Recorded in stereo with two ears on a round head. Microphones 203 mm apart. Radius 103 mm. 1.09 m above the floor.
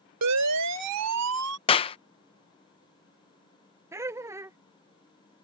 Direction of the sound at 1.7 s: 25° left (ahead or behind).